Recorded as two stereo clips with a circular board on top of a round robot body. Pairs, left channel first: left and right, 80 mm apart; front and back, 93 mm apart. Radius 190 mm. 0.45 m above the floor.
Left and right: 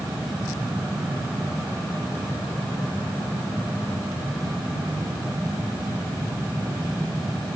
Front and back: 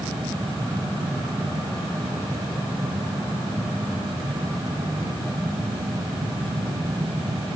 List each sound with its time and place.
Only background noise.